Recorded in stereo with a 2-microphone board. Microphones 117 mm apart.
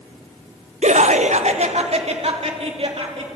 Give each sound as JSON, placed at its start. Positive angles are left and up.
{"t": 0.8, "sound": "laughter", "side_deg": -75, "distance_m": 1.0}